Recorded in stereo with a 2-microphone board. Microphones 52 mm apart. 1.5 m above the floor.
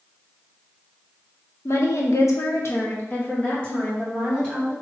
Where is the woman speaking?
55° left (ahead or behind), 0.8 m; by 4.7 s 10° left (ahead or behind), 1.7 m.